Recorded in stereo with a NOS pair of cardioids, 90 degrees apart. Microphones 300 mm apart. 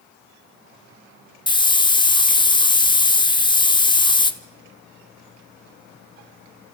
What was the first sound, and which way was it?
A hiss, 15° left.